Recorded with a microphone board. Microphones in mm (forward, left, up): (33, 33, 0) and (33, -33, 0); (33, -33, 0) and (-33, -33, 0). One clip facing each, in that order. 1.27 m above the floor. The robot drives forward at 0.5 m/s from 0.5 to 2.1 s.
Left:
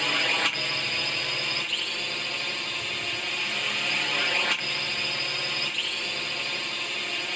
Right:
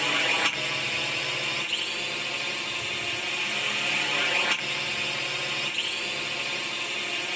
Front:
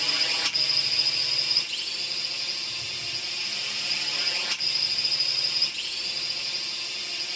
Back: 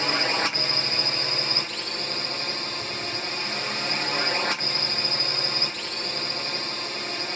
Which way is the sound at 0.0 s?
175° right.